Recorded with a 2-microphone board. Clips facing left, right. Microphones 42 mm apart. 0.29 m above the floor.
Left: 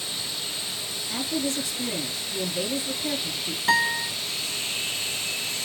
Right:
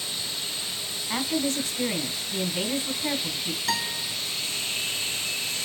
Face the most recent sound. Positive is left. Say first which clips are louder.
# left 9 dB
turn(degrees=30)  # may be behind; listen again after turning